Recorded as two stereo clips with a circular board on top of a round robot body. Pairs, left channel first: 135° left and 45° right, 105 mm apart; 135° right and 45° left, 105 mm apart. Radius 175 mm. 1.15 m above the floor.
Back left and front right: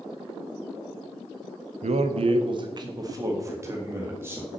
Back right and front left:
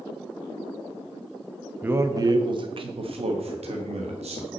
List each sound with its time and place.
1.8 s a man speaking: 30° right, 0.6 m; by 4.6 s 25° left, 1.8 m